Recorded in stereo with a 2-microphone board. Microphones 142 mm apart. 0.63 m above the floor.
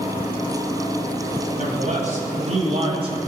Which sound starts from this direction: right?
A man speaking, at 1.6 s.